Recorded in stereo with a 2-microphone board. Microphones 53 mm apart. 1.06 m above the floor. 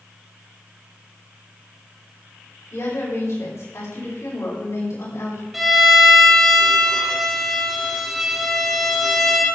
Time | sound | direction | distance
2.7 | a woman speaking | 80° left | 4.5 m
5.5 | a violin | 5° right (ahead or behind) | 1.7 m